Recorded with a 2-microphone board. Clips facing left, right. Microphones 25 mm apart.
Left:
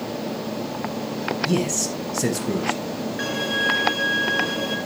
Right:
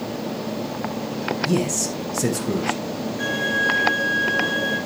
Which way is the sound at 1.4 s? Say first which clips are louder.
Even; 5° left (ahead or behind).